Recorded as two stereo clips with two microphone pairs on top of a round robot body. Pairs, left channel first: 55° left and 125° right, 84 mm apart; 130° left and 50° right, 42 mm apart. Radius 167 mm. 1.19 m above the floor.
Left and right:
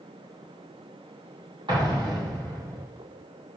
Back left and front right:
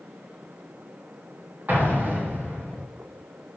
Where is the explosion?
100° right, 2.5 m.